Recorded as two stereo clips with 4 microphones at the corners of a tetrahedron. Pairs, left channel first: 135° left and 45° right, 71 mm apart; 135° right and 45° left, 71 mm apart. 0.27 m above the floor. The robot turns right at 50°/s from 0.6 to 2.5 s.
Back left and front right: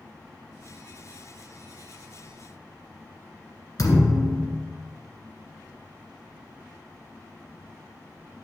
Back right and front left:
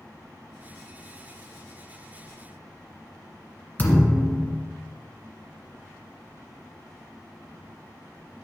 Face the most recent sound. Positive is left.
turn(degrees=165)